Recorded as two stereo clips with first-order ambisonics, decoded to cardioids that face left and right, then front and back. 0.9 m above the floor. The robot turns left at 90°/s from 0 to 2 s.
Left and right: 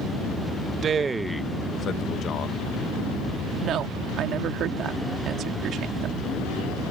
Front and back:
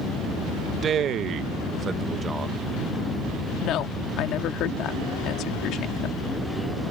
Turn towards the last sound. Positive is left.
turn(degrees=-40)